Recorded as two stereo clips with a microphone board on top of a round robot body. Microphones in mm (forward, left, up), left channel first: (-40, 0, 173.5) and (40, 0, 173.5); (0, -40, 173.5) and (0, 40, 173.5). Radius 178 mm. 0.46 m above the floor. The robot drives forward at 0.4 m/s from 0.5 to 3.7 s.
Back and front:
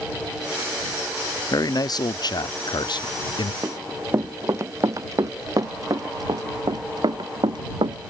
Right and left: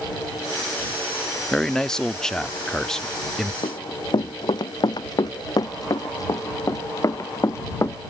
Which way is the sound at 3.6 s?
60° right.